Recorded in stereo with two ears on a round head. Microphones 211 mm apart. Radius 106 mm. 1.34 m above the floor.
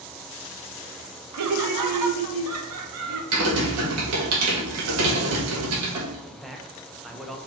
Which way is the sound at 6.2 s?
Centre (ahead or behind).